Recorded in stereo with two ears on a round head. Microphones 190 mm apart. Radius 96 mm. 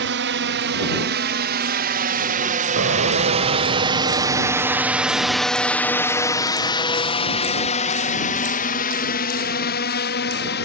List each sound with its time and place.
0.0 s a drone: 60° right (ahead or behind); by 10.7 s 55° left (ahead or behind)
2.8 s an explosion: 60° right (ahead or behind)